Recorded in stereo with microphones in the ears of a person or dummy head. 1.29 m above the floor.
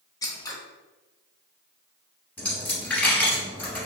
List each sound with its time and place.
0.2 s scissors: 15° left (ahead or behind), 0.6 m
2.4 s a dropped coin: 5° left (ahead or behind), 1.2 m